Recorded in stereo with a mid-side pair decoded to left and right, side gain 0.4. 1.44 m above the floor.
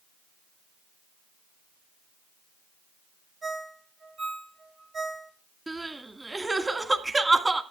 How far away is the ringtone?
About 4 m.